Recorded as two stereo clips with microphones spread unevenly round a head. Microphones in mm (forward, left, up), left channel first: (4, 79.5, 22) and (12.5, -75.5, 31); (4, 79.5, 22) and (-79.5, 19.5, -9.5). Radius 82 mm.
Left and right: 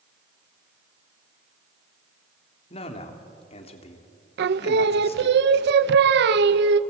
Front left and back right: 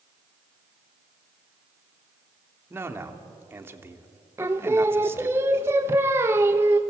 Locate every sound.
2.7 s a man speaking: 145° left, 3 m
4.4 s singing: 70° right, 0.9 m